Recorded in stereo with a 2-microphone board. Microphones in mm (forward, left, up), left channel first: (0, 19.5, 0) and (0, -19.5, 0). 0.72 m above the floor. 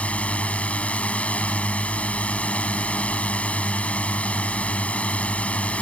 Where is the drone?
35° left (ahead or behind).